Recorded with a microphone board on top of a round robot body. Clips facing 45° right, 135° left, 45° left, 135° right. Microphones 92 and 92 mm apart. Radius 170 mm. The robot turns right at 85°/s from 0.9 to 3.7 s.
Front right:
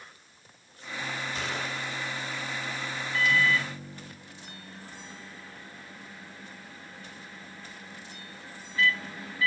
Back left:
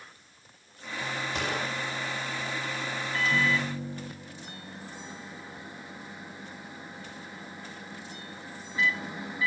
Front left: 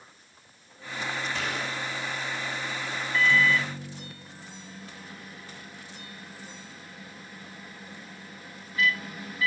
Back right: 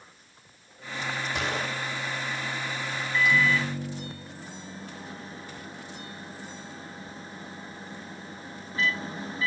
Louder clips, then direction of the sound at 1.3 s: Back left 2 dB, back right 2 dB; 155° left.